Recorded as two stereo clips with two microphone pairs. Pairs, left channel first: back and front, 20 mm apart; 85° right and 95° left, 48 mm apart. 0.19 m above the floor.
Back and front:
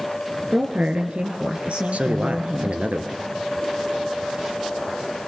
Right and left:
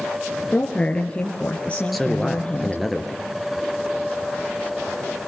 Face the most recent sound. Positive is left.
turn(degrees=5)